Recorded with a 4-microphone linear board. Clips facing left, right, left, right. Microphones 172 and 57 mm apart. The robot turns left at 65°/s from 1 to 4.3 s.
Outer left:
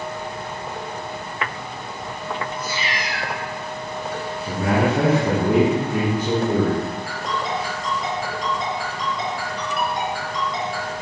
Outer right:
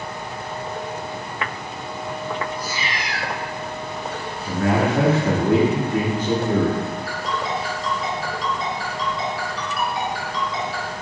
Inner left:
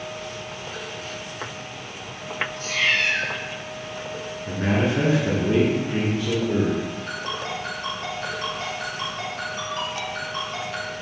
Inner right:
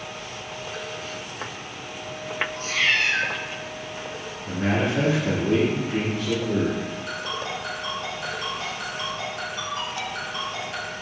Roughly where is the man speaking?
Centre.